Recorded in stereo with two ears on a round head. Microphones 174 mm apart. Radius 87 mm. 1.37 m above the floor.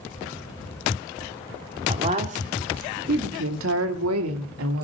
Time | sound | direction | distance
1.9 | a woman speaking | 30° right (ahead or behind) | 3 m